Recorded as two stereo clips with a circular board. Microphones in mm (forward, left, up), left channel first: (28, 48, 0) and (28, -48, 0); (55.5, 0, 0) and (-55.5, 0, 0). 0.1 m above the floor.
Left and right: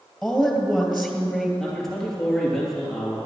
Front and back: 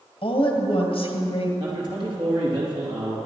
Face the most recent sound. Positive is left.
turn(degrees=175)